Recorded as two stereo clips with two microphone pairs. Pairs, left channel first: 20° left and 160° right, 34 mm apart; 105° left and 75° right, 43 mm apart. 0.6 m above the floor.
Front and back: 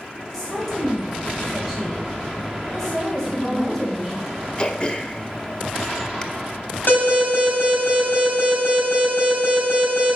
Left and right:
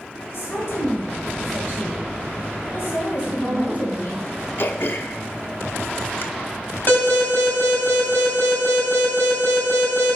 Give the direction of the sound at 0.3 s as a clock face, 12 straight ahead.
8 o'clock.